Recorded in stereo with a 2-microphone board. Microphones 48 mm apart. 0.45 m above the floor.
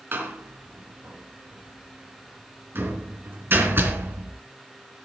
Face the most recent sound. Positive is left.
turn(degrees=-50)  # may be behind; listen again after turning